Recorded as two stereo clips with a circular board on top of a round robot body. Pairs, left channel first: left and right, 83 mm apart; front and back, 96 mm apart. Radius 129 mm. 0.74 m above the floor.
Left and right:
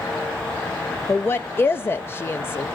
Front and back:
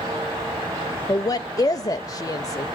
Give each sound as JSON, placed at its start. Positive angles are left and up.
{"t": 1.1, "sound": "a woman speaking", "azimuth_deg": 35, "distance_m": 0.7}